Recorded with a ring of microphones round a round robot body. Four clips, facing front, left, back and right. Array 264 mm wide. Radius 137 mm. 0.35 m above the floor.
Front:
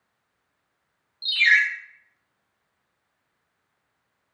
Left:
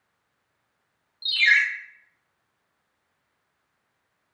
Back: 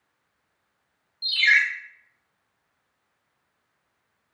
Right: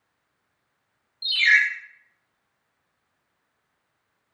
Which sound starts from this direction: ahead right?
A ringtone, at 1.2 s.